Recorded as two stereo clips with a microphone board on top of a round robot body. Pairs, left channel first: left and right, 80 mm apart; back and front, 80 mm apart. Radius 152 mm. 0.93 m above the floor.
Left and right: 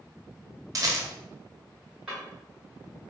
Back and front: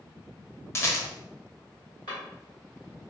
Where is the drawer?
170° right, 0.5 m.